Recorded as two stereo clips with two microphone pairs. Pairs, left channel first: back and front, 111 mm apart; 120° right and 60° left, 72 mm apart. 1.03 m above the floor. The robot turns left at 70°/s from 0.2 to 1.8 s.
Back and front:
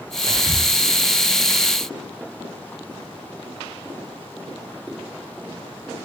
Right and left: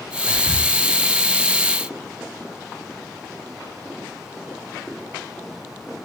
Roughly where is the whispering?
Ahead left.